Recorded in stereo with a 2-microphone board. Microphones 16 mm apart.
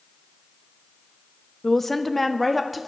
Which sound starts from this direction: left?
A woman speaking, at 1.6 s.